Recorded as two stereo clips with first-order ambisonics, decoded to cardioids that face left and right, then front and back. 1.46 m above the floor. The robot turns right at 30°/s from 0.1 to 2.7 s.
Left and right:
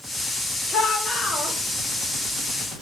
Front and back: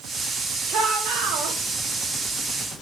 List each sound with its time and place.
0.7 s a shout: 145° left, 4 m; by 1.6 s 170° left, 4 m